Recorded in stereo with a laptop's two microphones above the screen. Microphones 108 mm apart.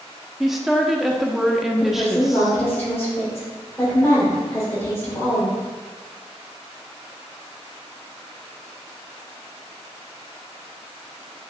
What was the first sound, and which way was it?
A woman speaking, 5° right (ahead or behind).